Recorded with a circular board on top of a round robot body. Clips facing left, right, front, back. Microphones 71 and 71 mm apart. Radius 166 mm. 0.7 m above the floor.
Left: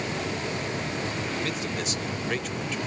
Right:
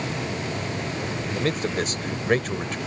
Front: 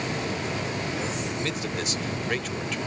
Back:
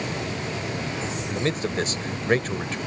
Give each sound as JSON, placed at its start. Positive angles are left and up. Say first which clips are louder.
{"t": 1.3, "sound": "a man speaking", "louder": "right 5 dB, back 4 dB", "azimuth_deg": -130}